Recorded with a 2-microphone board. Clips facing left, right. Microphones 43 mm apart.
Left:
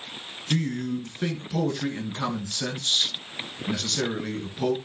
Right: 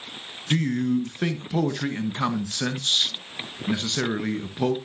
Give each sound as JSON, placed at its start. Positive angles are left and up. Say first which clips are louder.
{"t": 0.5, "sound": "a man speaking", "louder": "right 4 dB", "side_deg": -25, "distance_m": 1.4}